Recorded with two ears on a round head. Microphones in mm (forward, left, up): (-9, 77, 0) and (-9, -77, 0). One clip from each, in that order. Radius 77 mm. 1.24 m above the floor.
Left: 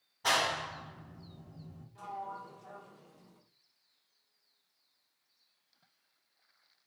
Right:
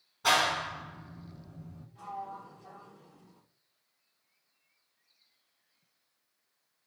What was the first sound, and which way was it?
A clap, 5° left (ahead or behind).